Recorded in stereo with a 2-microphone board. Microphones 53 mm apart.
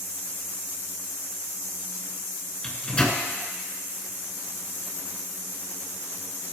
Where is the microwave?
20° left (ahead or behind), 1.4 m.